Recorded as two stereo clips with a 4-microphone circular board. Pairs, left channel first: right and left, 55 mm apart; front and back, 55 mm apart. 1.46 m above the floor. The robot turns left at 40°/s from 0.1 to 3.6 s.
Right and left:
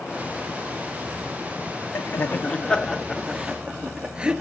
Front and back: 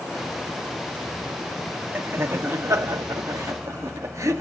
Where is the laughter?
130° right, 1.0 m; by 4.4 s 165° left, 1.0 m.